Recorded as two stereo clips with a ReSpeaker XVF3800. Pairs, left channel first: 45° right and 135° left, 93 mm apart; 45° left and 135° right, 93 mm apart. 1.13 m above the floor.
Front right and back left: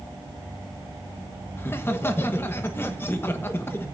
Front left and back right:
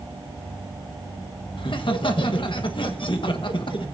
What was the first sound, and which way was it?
Laughter, 20° left.